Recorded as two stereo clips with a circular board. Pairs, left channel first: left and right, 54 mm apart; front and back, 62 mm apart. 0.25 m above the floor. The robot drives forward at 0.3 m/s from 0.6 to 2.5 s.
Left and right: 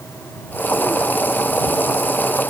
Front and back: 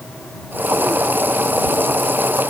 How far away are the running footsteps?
No running footsteps in this recording.